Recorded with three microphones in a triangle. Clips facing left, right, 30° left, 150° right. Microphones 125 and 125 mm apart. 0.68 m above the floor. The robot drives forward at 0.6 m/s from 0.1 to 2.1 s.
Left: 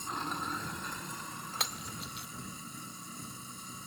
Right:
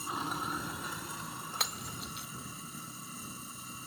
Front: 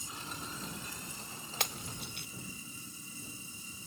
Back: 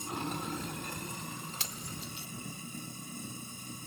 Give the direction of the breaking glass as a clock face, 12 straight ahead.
12 o'clock.